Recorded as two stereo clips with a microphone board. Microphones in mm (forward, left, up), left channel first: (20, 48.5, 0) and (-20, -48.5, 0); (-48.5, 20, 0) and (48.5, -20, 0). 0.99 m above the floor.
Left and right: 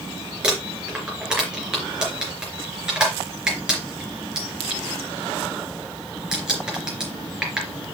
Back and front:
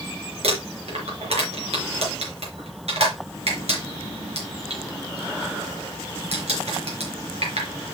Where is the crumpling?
30° right, 3.5 m.